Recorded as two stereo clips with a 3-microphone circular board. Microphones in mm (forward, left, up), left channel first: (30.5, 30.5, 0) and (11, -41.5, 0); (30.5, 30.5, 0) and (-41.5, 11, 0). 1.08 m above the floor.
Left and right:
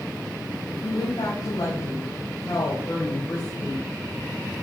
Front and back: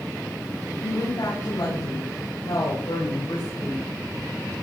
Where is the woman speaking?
45° left, 5.5 m; by 3.9 s 15° left, 4 m.